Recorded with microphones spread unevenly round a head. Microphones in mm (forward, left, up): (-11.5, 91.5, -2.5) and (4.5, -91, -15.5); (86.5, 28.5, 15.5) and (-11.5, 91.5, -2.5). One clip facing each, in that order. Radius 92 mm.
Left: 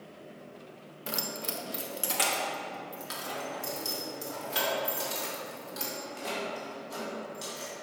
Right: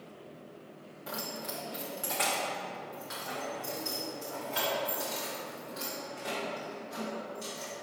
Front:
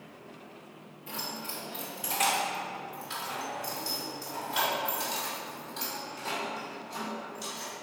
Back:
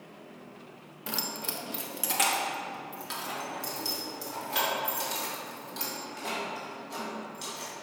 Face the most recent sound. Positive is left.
turn(degrees=140)